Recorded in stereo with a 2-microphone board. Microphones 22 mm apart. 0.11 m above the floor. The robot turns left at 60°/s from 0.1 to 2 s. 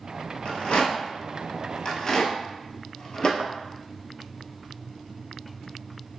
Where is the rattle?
40° left (ahead or behind), 1.0 m; by 3.3 s 35° left (ahead or behind), 1.0 m.